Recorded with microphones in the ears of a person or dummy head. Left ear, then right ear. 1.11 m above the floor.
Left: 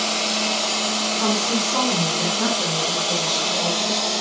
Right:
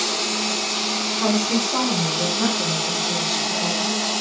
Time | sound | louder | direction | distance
1.2 | a woman speaking | right 1 dB | 15° right (ahead or behind) | 9 m